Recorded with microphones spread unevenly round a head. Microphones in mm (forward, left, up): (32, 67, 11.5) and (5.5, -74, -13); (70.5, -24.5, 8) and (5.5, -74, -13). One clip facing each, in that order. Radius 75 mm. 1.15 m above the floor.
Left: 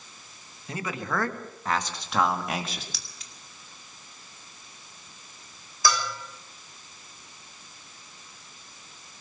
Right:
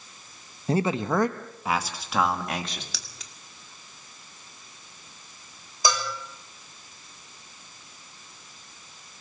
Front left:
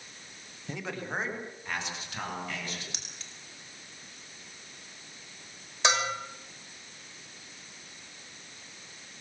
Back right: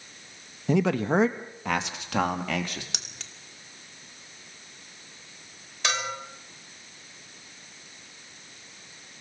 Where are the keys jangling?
135° right, 2 m.